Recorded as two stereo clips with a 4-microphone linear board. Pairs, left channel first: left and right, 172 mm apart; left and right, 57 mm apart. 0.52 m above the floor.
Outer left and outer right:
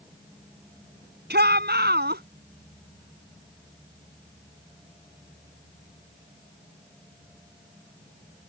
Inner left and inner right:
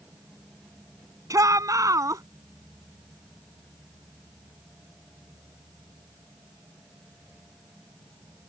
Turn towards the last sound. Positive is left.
turn(degrees=-70)  # may be behind; listen again after turning